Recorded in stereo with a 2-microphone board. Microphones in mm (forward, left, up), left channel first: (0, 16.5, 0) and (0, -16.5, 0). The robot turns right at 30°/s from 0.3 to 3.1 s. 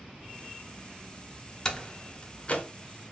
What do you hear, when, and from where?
1.6 s a door slam: 20° left (ahead or behind), 0.7 m; by 2.6 s 40° left (ahead or behind), 0.7 m